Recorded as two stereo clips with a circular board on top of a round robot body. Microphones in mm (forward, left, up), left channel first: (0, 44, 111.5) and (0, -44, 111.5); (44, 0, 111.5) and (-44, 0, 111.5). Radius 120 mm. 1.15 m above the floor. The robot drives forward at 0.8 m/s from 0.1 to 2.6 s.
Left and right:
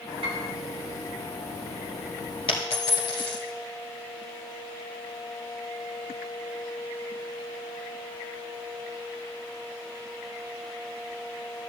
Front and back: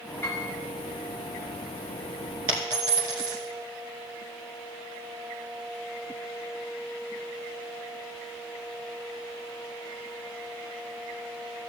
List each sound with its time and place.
0.2 s a piano: 70° right, 1.6 m; by 0.5 s 75° right, 1.6 m
2.5 s a dropped coin: 130° left, 1.2 m; by 3.4 s 135° left, 1.3 m